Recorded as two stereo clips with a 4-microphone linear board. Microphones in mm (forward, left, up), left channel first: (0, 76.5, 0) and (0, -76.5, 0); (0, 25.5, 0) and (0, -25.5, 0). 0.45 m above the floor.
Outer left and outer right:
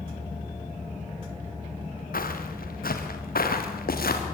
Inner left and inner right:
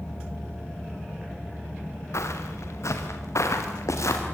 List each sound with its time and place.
2.1 s footsteps: 70° left (ahead or behind), 4 m; by 4.2 s 80° left, 5.5 m